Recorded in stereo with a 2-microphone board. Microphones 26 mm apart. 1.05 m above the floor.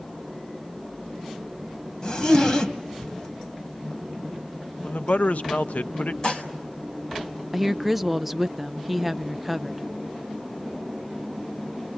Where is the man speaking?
80° left, 0.6 m.